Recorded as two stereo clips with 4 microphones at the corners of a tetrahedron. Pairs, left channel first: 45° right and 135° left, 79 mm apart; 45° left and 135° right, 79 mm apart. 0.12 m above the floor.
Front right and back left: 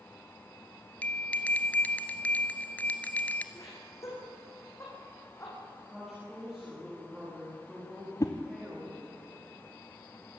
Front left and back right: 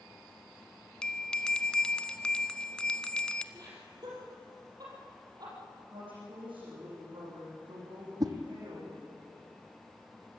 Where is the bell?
15° right, 1.0 m.